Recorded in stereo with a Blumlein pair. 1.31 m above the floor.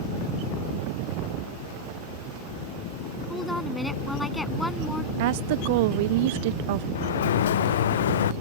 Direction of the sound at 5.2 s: 50° right.